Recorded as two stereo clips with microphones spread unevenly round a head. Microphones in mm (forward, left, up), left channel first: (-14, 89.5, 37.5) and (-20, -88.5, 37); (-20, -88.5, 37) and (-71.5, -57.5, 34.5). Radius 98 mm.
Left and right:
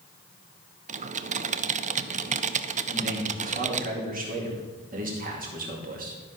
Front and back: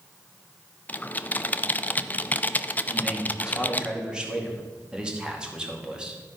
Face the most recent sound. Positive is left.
turn(degrees=-135)